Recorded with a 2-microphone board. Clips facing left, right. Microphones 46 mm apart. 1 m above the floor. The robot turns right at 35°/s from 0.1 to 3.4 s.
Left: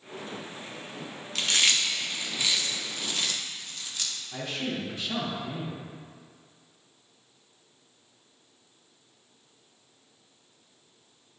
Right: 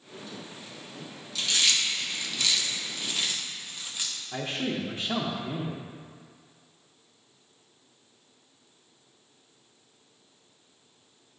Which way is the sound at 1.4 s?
55° left (ahead or behind).